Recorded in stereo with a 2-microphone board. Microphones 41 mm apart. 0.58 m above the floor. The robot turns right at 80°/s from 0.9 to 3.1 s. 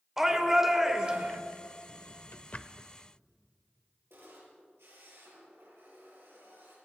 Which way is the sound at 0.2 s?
165° right.